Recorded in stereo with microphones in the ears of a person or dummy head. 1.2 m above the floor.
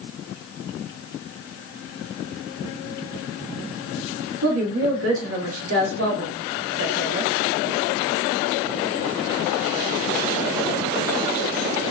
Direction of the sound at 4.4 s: 80° right.